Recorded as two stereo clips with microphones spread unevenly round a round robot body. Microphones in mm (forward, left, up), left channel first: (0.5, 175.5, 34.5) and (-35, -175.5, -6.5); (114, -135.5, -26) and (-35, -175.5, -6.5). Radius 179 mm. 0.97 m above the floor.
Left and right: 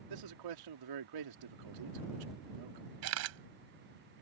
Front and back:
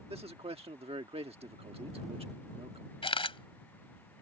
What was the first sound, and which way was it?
A man speaking, 110° right.